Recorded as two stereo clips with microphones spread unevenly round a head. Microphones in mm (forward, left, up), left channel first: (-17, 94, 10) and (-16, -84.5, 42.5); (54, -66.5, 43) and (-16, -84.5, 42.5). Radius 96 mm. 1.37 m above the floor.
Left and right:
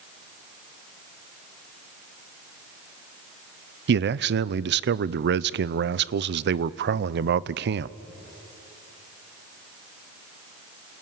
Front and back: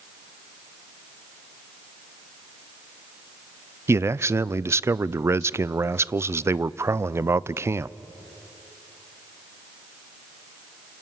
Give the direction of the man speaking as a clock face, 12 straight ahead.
4 o'clock.